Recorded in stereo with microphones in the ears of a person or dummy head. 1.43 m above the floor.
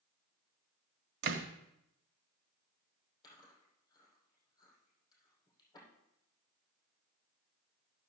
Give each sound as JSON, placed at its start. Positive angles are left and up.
{"t": 1.2, "sound": "a door slam", "side_deg": -65, "distance_m": 1.4}
{"t": 3.2, "sound": "chewing", "side_deg": 20, "distance_m": 6.0}